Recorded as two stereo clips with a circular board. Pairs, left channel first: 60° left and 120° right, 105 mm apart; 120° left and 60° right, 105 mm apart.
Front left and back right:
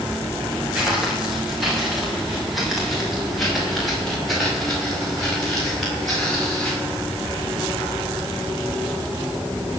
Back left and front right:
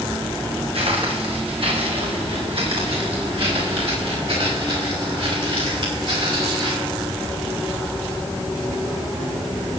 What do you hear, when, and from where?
0.7 s footsteps: 35° right, 6.5 m; by 6.8 s 25° right, 11.5 m